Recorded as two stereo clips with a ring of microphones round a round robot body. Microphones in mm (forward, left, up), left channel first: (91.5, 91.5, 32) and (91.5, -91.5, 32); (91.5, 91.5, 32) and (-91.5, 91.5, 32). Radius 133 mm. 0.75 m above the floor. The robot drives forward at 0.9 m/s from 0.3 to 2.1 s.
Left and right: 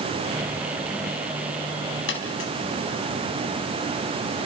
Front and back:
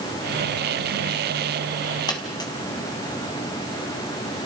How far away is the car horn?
I don't hear a car horn.